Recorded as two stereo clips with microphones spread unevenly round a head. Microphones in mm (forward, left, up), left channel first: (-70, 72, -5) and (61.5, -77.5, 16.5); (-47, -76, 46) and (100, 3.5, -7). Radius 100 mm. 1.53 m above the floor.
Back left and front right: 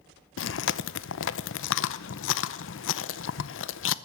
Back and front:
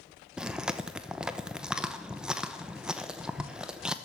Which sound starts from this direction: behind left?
Chewing, at 0.4 s.